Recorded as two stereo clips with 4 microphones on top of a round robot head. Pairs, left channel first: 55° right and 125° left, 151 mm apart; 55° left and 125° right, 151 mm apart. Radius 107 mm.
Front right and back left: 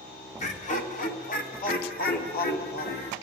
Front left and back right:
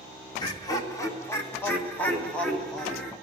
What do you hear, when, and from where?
0.4 s laughter: 10° right, 2.5 m; by 3.1 s 30° right, 3.5 m